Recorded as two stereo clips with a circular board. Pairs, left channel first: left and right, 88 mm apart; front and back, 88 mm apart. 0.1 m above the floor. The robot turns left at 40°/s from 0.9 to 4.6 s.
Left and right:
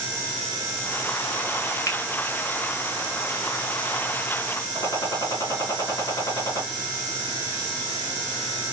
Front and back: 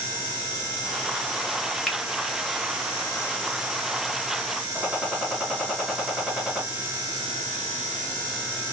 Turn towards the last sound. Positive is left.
turn(degrees=110)